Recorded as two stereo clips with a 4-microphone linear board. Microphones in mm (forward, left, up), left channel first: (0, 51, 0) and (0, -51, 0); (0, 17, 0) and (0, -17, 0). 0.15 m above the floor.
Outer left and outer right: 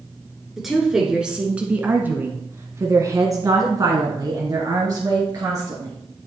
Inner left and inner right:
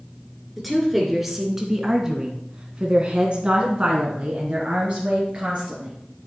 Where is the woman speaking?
Centre (ahead or behind), 2.0 m; by 6.0 s 30° right (ahead or behind), 2.5 m.